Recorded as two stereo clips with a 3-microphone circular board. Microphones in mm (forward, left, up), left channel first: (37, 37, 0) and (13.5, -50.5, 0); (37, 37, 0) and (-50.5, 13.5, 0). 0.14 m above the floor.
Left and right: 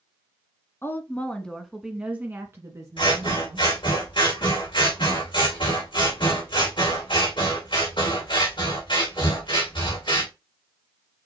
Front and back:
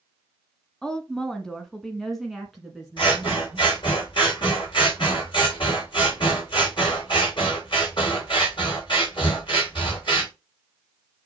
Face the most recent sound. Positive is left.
turn(degrees=45)